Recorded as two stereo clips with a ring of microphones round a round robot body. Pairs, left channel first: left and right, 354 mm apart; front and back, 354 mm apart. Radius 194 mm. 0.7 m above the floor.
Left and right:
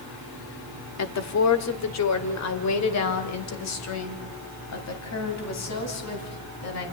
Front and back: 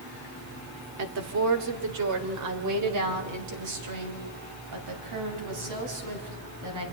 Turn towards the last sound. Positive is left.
turn(degrees=135)